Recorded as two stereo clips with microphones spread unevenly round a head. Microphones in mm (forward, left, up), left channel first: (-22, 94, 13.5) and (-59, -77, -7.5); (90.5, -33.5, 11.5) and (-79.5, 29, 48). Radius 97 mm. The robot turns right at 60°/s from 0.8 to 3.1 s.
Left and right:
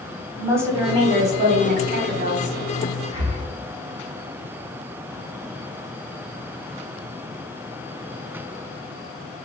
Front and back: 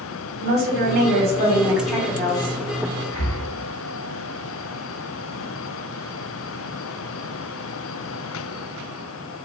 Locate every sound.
0.4 s a woman speaking: 170° right, 0.9 m; by 2.6 s 60° right, 0.9 m
3.1 s breathing: 55° left, 1.6 m